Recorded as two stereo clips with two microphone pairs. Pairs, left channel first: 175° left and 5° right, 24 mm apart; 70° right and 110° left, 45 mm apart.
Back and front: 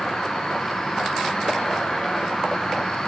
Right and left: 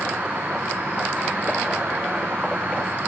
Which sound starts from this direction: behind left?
An insect, at 0.0 s.